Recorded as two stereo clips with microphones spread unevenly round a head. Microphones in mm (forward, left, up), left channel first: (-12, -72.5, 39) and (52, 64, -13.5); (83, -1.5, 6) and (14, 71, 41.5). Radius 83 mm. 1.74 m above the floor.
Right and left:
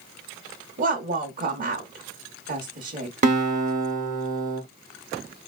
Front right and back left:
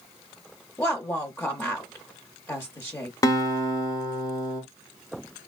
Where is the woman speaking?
25° left, 0.6 m.